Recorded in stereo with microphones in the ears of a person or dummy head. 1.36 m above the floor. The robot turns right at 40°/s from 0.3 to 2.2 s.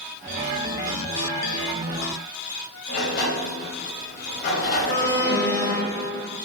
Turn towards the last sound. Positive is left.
turn(degrees=45)  # may be behind; listen again after turning